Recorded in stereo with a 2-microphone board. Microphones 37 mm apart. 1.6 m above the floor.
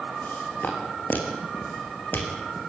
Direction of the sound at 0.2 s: 50° left (ahead or behind).